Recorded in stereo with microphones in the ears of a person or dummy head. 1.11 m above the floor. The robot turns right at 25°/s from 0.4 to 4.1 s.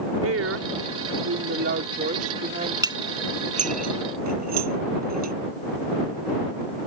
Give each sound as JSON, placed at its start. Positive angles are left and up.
{"t": 0.2, "sound": "a woman speaking", "azimuth_deg": -95}
{"t": 2.8, "sound": "dishes clattering", "side_deg": -20}